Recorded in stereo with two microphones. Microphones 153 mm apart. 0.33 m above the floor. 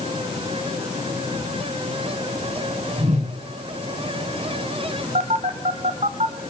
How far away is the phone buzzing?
About 1.1 m.